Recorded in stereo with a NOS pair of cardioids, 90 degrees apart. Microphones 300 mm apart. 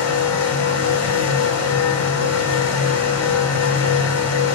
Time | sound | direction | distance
0.0 | a fan | 50° left | 1.0 m